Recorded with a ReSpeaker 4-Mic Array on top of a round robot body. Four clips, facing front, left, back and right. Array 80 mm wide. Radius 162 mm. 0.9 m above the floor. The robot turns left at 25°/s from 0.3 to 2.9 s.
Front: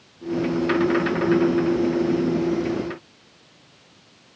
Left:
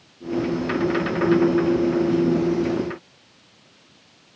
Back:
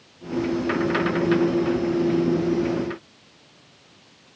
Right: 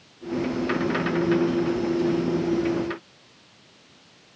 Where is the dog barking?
No dog barking in this recording.